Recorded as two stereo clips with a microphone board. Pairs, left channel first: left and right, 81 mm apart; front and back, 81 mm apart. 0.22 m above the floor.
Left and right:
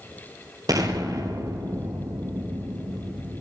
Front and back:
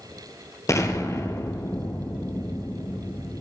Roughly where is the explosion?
Ahead right.